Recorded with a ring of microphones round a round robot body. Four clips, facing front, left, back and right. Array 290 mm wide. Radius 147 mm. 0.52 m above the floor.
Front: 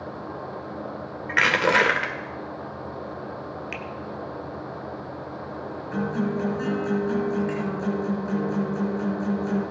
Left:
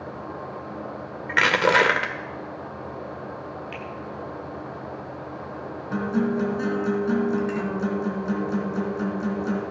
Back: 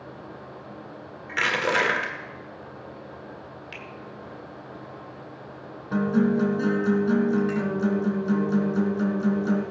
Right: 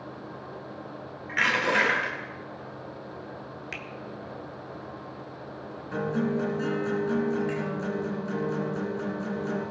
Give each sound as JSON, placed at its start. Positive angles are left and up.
{"t": 1.3, "sound": "crushing", "azimuth_deg": 70, "distance_m": 1.9}
{"t": 3.7, "sound": "a finger snap", "azimuth_deg": -80, "distance_m": 1.2}
{"t": 5.9, "sound": "a guitar", "azimuth_deg": 145, "distance_m": 3.5}